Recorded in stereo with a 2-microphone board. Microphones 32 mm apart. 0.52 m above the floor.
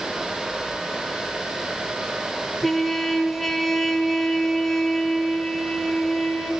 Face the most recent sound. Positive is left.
turn(degrees=-5)  # may be behind; listen again after turning